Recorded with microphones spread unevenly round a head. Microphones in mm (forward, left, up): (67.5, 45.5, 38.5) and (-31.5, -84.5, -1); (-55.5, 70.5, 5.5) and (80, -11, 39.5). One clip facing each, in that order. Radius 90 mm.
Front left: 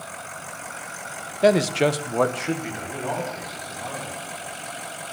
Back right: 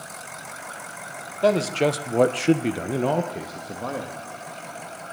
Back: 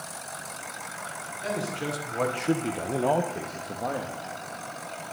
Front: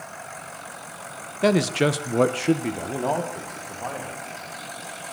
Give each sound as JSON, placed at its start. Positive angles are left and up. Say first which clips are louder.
{"t": 1.4, "sound": "a man speaking", "louder": "front left 2 dB, front 11 dB", "azimuth_deg": -25, "distance_m": 1.5}